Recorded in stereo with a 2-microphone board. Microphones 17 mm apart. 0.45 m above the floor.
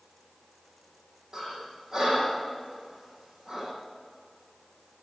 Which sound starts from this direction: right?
Breathing, at 1.3 s.